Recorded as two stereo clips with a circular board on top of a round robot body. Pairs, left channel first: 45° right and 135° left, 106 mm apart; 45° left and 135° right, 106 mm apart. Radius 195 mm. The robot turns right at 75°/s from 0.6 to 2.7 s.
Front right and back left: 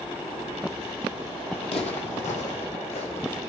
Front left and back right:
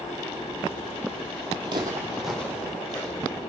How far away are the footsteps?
About 1.3 m.